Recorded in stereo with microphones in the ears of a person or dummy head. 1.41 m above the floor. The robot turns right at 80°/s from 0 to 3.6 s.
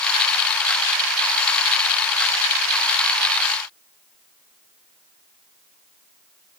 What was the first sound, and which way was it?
Only background noise.